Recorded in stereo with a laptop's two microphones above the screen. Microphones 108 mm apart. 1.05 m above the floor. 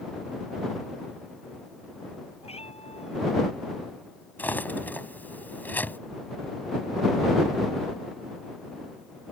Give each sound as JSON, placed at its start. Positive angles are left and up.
{"t": 2.4, "sound": "a cat meowing", "side_deg": 70}
{"t": 4.4, "sound": "cutlery clinking", "side_deg": 15}